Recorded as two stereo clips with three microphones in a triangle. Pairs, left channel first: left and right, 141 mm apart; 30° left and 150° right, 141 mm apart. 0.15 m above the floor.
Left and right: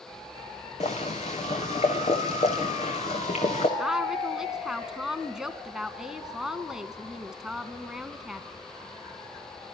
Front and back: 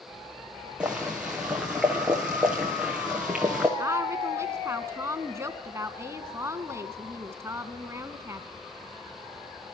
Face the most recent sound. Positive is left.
turn(degrees=-170)